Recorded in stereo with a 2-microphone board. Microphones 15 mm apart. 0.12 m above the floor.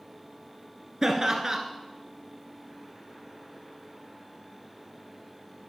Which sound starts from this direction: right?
Laughter, at 1.0 s.